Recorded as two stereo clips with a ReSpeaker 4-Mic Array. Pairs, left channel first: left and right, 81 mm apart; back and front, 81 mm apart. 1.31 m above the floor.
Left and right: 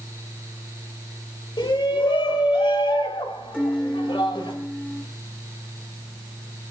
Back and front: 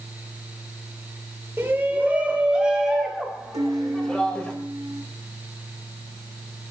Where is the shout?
65° left, 4.5 m; by 4.5 s 100° left, 5.5 m.